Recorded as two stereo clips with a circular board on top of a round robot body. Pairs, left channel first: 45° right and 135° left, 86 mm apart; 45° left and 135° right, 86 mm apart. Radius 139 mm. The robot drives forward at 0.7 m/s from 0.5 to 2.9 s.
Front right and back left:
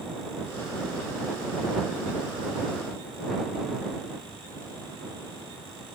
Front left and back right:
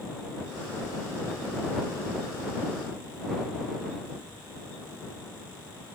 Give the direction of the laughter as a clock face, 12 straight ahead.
I don't hear laughter.